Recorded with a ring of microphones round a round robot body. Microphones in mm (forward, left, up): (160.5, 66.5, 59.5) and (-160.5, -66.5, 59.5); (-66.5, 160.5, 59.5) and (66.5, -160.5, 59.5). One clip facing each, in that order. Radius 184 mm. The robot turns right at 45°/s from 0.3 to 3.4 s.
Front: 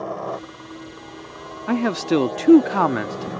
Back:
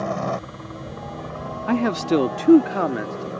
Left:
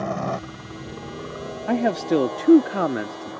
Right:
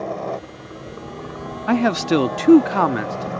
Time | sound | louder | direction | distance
0.0 | a helicopter | back 2 dB, right 1 dB | 165° left | ?
1.7 | a man speaking | even, right 3 dB | 75° right | ?